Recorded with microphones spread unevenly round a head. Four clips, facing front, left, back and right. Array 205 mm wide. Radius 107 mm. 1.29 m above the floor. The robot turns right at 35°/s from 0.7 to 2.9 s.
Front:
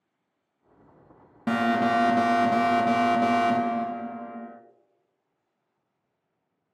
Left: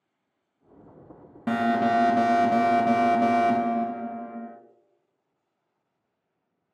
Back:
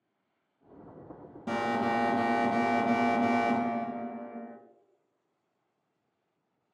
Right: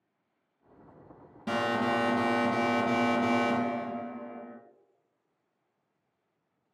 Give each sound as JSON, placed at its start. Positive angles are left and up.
{"t": 1.5, "sound": "an alarm", "azimuth_deg": 30, "distance_m": 0.7}